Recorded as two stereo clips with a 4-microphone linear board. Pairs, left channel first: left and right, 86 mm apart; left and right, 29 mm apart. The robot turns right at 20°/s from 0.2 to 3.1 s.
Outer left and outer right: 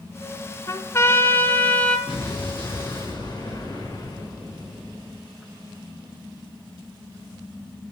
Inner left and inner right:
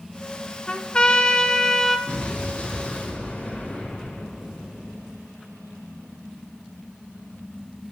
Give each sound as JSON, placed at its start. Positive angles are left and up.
{"t": 0.7, "sound": "a trumpet", "side_deg": 35, "distance_m": 1.0}
{"t": 2.1, "sound": "an explosion", "side_deg": 75, "distance_m": 5.5}